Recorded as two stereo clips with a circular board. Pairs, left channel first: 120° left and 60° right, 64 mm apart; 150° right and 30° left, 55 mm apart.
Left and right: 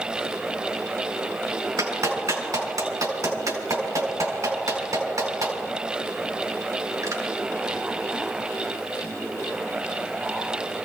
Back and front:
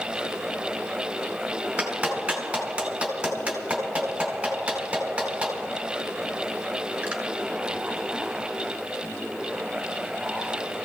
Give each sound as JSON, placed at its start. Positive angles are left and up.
{"t": 1.8, "sound": "a clap", "azimuth_deg": -40, "distance_m": 4.5}